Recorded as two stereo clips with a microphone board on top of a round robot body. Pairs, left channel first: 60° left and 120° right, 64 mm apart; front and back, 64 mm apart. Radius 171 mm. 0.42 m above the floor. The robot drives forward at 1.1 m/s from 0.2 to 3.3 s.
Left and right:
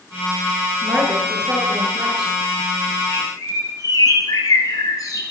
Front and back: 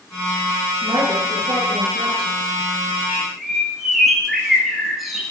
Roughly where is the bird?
Left.